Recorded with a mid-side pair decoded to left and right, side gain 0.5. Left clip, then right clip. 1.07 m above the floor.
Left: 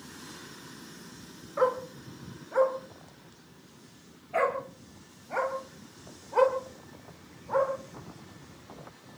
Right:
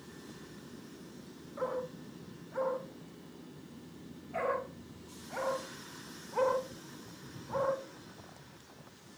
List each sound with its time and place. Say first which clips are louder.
1.6 s a dog barking: left 9 dB; 65° left, 5.5 m; by 7.7 s 40° left, 10 m